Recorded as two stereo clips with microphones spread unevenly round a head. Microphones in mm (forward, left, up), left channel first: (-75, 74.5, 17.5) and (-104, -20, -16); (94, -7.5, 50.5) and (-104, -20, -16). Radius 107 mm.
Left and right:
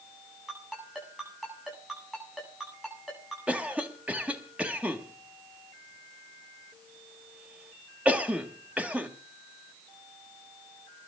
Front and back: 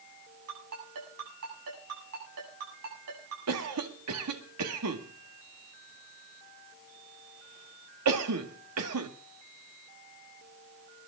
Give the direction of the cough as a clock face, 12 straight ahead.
6 o'clock.